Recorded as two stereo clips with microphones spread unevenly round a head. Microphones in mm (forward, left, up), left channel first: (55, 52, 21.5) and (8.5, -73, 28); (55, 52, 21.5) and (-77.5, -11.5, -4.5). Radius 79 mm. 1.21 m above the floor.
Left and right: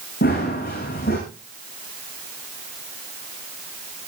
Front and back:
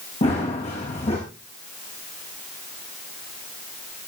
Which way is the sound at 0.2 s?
70° left.